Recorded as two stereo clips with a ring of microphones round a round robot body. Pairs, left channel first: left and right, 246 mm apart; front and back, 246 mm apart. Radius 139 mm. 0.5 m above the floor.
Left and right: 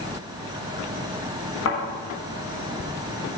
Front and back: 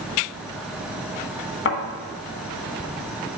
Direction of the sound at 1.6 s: 40° left.